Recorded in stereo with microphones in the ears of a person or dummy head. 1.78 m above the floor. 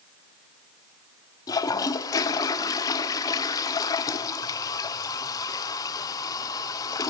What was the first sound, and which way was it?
A toilet flushing, 20° left (ahead or behind).